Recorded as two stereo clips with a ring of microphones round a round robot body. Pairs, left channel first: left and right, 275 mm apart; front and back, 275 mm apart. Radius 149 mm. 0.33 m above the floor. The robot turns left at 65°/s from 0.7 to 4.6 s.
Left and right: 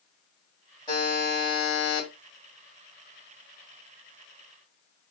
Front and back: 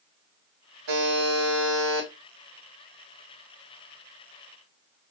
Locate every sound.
0.9 s a buzzer: 160° left, 2 m; by 2.1 s 85° left, 2 m